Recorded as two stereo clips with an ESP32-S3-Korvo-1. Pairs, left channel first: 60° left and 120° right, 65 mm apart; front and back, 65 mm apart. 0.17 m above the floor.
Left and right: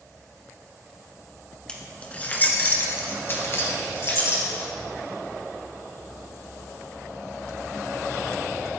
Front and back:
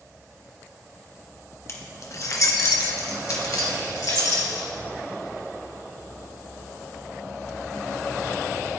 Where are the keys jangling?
10° right, 1.5 m; by 4.7 s 20° left, 3.5 m.